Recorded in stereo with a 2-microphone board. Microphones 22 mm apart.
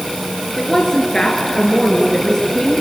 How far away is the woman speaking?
About 2.5 m.